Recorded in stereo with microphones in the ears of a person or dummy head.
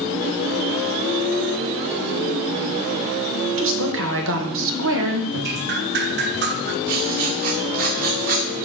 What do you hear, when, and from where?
3.6 s a woman speaking: 70° right (ahead or behind), 1.6 m
5.3 s dripping: 55° right (ahead or behind), 0.9 m
6.9 s writing: 45° right (ahead or behind), 1.9 m